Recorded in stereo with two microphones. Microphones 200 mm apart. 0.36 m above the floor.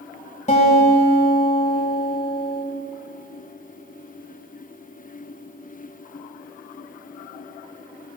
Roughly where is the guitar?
Left.